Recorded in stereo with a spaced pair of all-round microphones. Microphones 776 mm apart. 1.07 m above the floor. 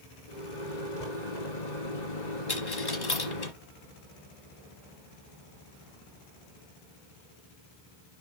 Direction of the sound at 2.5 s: 30° left (ahead or behind).